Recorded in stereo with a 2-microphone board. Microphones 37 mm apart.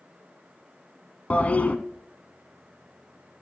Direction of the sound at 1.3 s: 40° left (ahead or behind).